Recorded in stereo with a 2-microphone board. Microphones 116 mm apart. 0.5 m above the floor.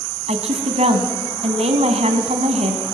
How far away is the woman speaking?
About 3.5 m.